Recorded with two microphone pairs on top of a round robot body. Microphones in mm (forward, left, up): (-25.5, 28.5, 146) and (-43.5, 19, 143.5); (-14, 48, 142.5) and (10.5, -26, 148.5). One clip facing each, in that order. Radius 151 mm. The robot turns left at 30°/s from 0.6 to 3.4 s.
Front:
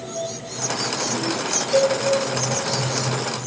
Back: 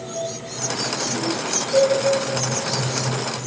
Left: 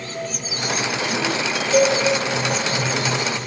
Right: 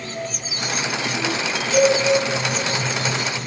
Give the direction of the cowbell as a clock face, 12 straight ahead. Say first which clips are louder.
Back 1 dB, even; 10 o'clock.